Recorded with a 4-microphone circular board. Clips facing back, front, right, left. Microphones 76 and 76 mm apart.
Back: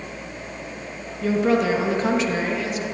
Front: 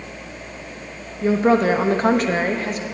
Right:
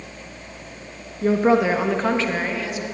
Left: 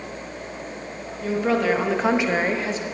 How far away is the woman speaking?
About 1.0 m.